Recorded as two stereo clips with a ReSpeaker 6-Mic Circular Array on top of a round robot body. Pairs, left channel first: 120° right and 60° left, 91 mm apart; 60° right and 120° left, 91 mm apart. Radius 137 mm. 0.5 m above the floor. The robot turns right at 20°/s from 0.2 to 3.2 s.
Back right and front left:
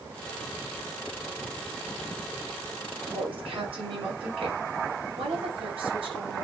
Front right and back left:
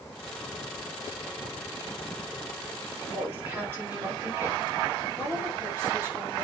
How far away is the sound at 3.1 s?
About 6 m.